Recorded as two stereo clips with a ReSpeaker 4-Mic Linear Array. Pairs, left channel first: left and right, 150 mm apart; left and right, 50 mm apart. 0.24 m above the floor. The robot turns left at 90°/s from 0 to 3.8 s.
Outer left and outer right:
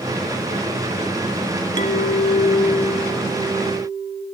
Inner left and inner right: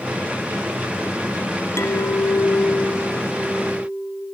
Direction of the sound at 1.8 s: 115° left.